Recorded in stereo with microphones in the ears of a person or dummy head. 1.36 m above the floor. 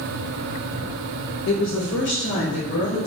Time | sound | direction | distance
1.5 | a woman speaking | 50° left (ahead or behind) | 0.6 m